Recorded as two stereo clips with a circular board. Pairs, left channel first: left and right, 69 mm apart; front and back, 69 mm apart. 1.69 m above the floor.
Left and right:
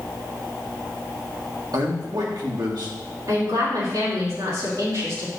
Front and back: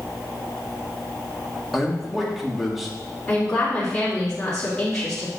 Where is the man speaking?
95° right, 2 m.